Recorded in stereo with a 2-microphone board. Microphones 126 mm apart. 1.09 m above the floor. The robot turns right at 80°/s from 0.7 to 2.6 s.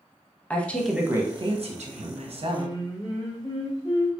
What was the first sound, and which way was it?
A woman speaking, 170° left.